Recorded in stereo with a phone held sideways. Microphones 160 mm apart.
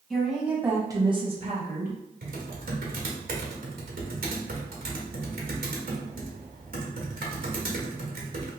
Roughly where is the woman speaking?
Centre.